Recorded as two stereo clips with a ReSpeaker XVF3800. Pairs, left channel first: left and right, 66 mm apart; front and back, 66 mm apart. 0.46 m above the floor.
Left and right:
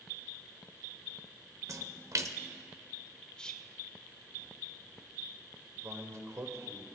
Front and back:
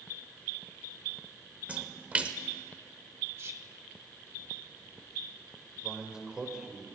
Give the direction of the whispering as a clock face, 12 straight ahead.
7 o'clock.